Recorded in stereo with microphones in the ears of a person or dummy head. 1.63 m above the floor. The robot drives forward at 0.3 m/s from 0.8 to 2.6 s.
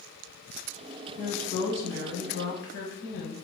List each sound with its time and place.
1.2 s a woman speaking: 60° left (ahead or behind), 1.5 m; by 3.4 s 75° left (ahead or behind), 1.3 m